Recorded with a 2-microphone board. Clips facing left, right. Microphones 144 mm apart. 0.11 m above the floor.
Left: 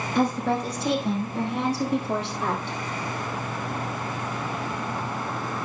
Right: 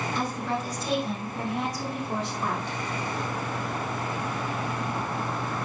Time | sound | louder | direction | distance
0.1 | a woman speaking | left 10 dB | 60° left (ahead or behind) | 4 m